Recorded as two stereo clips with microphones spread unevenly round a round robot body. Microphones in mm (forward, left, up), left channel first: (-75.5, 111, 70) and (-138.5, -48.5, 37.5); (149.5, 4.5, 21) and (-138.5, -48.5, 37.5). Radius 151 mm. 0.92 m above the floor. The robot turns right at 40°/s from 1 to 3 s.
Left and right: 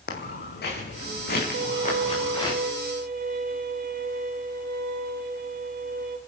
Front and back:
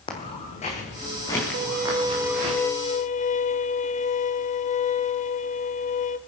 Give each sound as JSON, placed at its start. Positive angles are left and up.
{"t": 0.1, "sound": "footsteps", "azimuth_deg": 85, "distance_m": 2.5}
{"t": 1.5, "sound": "a violin", "azimuth_deg": -115, "distance_m": 0.8}